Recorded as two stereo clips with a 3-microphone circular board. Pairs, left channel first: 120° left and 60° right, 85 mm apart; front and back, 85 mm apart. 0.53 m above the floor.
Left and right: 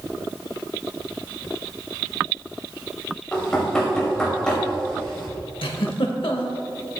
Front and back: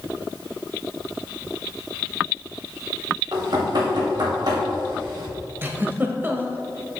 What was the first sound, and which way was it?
Knocking, 160° right.